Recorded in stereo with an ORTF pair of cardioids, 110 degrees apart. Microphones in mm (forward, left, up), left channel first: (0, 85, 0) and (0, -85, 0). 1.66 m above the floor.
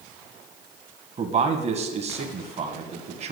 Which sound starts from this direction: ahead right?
A man speaking, at 1.2 s.